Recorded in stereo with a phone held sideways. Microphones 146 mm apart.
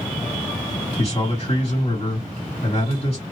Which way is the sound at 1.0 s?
40° left (ahead or behind).